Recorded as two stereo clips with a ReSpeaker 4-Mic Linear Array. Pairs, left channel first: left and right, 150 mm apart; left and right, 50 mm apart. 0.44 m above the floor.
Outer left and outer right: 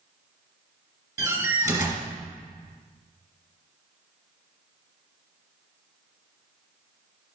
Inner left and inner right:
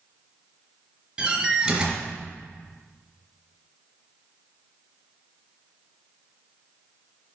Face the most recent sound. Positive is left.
turn(degrees=-20)  # may be behind; listen again after turning